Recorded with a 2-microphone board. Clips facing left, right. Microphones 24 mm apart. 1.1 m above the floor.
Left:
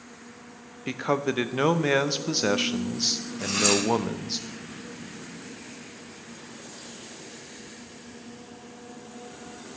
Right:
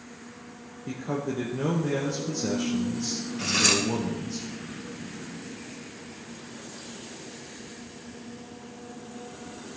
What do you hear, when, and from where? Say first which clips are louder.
0.9 s a man speaking: left 5 dB; 80° left, 0.6 m
3.4 s cutlery clinking: right 1 dB; 25° right (ahead or behind), 1.3 m